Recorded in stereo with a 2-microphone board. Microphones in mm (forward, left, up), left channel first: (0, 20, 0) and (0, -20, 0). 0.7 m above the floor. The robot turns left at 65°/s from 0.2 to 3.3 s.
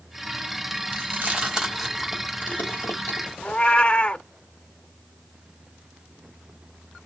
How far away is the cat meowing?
About 1.0 m.